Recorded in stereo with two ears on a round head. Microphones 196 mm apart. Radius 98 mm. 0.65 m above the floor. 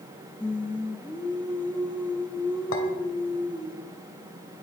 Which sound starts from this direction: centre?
Singing, at 0.4 s.